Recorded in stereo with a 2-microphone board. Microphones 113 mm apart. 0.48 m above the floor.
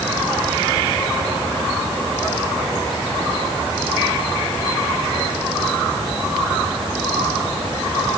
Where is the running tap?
I don't hear a running tap.